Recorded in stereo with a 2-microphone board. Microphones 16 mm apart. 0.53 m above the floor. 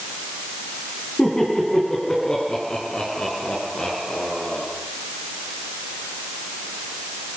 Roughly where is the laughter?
Left.